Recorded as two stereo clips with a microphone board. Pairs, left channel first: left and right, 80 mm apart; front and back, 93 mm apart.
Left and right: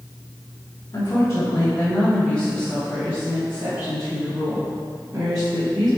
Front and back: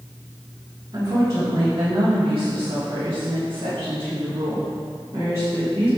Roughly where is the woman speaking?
Behind left.